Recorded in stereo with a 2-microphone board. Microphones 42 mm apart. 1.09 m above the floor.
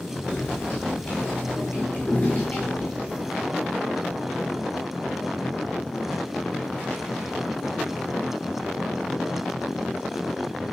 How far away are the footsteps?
About 4.5 m.